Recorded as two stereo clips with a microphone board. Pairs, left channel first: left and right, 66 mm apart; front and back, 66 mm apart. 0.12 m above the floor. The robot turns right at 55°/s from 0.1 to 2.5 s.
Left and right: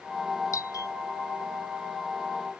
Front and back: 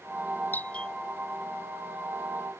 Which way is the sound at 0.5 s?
60° left.